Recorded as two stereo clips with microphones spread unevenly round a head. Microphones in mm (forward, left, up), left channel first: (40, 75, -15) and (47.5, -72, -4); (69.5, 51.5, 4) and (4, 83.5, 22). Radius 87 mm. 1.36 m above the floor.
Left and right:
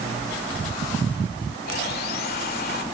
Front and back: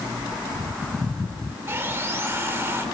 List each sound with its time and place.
1.7 s sawing: 110° left, 1.7 m